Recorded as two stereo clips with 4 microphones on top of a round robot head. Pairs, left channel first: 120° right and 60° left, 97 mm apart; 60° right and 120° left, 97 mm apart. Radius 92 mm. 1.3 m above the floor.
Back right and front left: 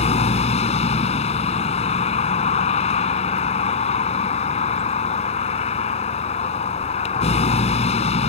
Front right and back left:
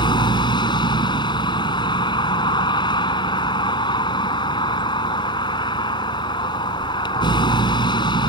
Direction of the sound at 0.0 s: 105° right.